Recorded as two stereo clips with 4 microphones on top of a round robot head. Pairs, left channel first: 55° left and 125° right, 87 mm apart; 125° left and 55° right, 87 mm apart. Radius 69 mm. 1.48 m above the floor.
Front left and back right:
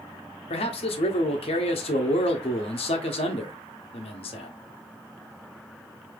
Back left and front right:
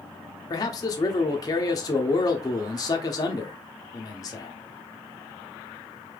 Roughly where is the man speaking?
Left.